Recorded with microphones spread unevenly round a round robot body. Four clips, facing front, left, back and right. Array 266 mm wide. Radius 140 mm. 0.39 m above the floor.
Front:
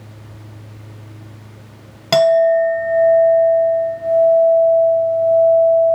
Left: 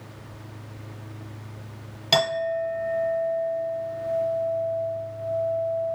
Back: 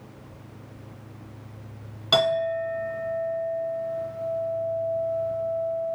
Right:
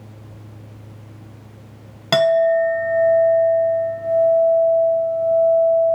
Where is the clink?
35° right, 1.0 m.